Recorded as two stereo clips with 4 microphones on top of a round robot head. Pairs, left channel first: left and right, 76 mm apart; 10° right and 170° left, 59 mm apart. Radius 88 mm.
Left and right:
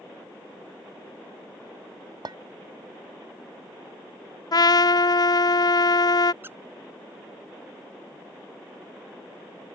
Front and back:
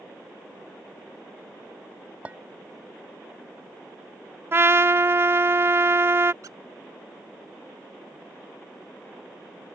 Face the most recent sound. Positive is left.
turn(degrees=-150)